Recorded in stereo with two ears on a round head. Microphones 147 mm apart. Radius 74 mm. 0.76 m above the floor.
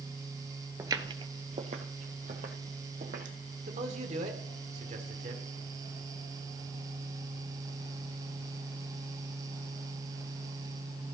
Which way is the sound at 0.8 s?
20° right (ahead or behind).